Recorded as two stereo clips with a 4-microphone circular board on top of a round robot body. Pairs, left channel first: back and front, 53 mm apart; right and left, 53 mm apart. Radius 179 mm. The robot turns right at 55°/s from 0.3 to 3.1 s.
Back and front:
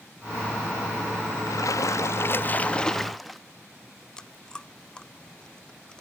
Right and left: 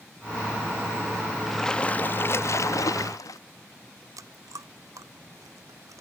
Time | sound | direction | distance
1.5 | a splash | straight behind | ?
4.2 | chewing | 105° left | ?